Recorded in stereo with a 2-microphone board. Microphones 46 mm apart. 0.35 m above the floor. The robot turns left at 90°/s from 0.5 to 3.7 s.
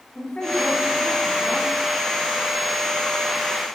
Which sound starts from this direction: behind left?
A woman speaking, at 0.1 s.